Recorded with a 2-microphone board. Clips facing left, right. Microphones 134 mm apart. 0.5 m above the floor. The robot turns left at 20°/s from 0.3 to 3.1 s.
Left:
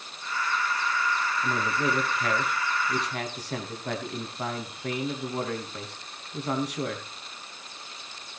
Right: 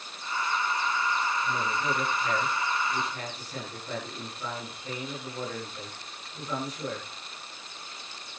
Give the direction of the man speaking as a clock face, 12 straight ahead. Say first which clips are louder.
Left 2 dB; 9 o'clock.